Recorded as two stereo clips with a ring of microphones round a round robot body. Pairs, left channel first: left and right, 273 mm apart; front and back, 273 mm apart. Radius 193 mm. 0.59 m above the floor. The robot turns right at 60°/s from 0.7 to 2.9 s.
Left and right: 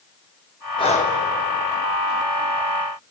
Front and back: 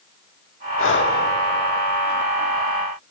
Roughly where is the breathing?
Ahead.